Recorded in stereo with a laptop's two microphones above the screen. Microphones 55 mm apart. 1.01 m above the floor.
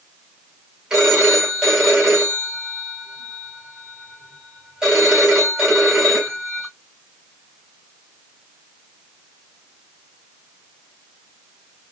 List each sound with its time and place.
0.9 s a phone ringing: 15° right (ahead or behind), 2.5 m